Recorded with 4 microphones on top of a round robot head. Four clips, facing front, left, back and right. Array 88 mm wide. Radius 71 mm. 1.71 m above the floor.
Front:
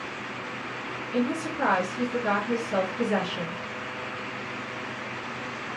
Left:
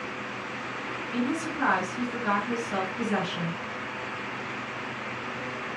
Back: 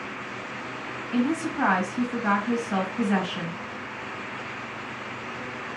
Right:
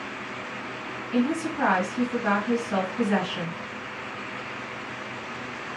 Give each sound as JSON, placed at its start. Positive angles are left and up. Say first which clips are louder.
{"t": 1.1, "sound": "a woman speaking", "louder": "right 5 dB, back 3 dB", "azimuth_deg": -150, "distance_m": 3.0}